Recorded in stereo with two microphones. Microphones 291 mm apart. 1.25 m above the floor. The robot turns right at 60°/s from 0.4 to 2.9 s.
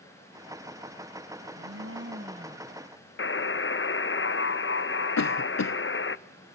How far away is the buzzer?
About 0.5 m.